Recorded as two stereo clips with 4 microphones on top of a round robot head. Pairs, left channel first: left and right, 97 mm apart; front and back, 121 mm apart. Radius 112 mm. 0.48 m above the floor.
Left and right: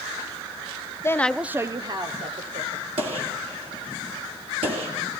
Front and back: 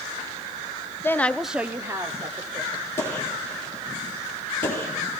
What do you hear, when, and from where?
1.0 s a woman speaking: 55° left, 0.8 m; by 2.9 s 115° right, 2 m
3.0 s a gunshot: 70° right, 3 m